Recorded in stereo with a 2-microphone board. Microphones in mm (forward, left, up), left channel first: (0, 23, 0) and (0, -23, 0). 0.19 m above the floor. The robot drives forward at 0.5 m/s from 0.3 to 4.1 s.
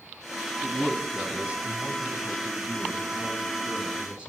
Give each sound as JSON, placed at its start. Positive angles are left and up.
{"t": 0.6, "sound": "a man speaking", "side_deg": -25, "distance_m": 1.4}